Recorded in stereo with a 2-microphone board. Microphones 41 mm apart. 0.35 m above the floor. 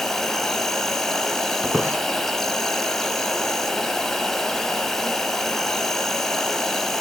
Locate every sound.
0.0 s an insect: 5° left (ahead or behind), 1.2 m
1.6 s a squeak: 45° right (ahead or behind), 1.6 m